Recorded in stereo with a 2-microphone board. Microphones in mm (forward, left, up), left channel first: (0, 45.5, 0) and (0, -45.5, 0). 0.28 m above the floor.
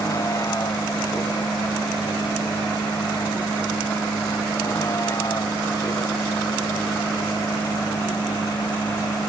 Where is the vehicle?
40° left (ahead or behind); by 9.3 s 35° left (ahead or behind).